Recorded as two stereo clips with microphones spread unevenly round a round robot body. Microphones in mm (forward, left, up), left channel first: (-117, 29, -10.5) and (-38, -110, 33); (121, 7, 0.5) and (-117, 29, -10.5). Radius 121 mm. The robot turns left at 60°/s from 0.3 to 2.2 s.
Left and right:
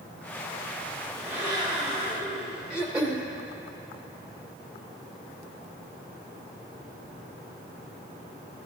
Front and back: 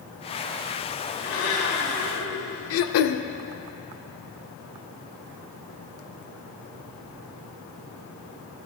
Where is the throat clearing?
25° left, 0.5 m.